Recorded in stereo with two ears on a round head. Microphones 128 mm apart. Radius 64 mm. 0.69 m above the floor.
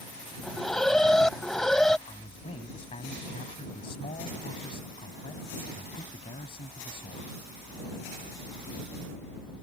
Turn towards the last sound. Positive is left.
turn(degrees=40)  # may be behind; listen again after turning